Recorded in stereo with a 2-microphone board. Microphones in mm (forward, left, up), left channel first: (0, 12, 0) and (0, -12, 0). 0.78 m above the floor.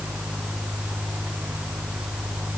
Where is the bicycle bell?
No bicycle bell in this recording.